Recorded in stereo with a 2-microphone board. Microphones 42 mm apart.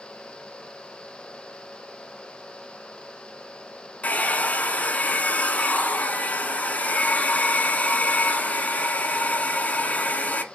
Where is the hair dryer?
35° left (ahead or behind), 0.8 m.